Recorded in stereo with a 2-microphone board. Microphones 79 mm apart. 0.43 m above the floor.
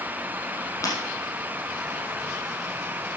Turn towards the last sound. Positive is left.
turn(degrees=45)  # may be behind; listen again after turning